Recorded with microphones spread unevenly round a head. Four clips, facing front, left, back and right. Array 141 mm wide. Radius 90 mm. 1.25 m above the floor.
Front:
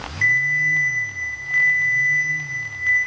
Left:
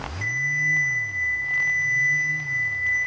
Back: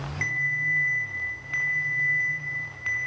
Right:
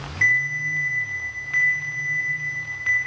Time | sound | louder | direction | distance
0.2 | a ringtone | right 4 dB, front 9 dB | 115° right | 5.5 m